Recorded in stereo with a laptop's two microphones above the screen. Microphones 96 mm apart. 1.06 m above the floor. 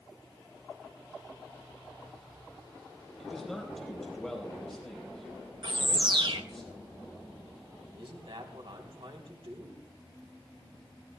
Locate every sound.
3.2 s a man speaking: 5° left (ahead or behind), 4 m
5.6 s a bird: 50° right (ahead or behind), 0.8 m
7.9 s a man speaking: 65° right (ahead or behind), 3 m